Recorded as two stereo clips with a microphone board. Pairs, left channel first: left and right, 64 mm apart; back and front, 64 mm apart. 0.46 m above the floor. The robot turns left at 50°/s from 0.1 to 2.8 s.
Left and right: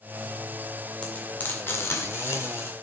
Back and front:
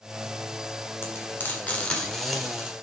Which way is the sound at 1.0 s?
155° left.